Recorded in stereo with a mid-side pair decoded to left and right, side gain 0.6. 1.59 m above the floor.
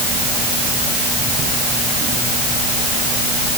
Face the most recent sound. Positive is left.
No sound to turn to.